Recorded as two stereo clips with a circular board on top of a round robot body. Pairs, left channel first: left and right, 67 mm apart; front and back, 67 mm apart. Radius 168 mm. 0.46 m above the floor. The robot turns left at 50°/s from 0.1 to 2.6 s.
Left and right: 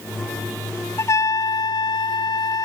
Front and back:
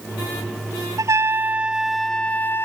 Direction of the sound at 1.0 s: 140° left.